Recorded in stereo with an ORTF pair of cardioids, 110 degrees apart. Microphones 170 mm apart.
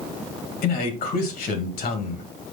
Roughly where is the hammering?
I don't hear hammering.